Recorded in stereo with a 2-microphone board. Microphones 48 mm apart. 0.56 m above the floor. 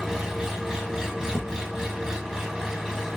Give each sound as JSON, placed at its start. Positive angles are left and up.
{"t": 0.0, "sound": "an engine running", "side_deg": -10, "distance_m": 1.3}
{"t": 1.3, "sound": "a thud", "side_deg": -75, "distance_m": 0.9}